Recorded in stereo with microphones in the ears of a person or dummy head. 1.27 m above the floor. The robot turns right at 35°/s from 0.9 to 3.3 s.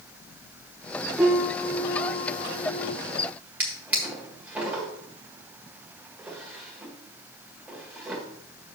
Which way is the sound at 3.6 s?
5° right (ahead or behind).